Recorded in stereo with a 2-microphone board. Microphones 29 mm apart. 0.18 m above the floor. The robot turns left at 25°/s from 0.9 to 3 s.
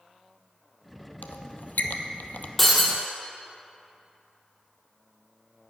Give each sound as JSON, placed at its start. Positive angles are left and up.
{"t": 1.2, "sound": "a squeak", "side_deg": 85, "distance_m": 0.6}
{"t": 2.6, "sound": "breaking glass", "side_deg": 5, "distance_m": 2.0}